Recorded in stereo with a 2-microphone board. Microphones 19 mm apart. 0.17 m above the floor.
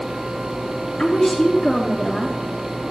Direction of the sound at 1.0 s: 50° left (ahead or behind).